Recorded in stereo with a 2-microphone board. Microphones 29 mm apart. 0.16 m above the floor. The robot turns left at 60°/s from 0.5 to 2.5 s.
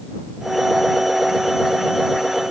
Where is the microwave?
I don't hear a microwave.